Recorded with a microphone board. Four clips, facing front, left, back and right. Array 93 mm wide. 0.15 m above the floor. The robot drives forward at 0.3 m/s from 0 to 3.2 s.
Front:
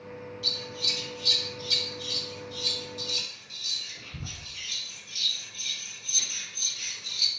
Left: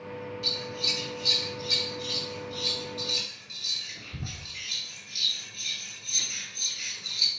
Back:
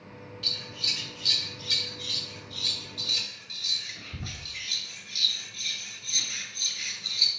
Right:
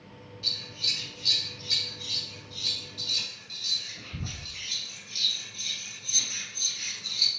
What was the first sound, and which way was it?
Scissors, straight behind.